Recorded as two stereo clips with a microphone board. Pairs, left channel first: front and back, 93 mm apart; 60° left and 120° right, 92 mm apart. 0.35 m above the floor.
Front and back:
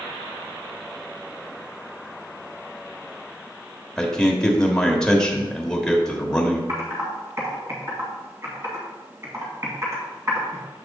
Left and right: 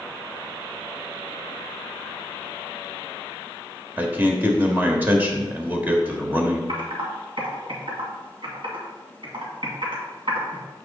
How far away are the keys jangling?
No keys jangling in this recording.